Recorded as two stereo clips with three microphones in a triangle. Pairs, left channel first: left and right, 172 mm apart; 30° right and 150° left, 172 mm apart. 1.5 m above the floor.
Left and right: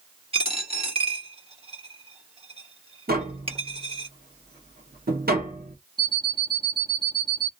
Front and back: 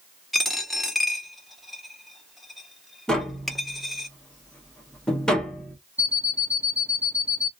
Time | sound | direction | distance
0.3 | a dropped coin | 120° right | 1.3 m
3.1 | tapping | 115° right | 1.1 m
6.0 | an alarm clock | 135° right | 0.8 m